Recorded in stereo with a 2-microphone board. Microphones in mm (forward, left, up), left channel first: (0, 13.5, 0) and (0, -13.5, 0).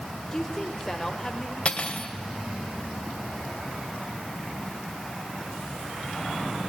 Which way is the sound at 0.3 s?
15° left (ahead or behind).